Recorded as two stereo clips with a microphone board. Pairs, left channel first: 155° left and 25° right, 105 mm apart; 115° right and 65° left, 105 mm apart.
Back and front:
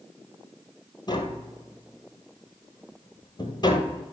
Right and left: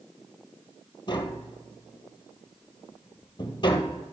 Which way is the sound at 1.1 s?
155° right.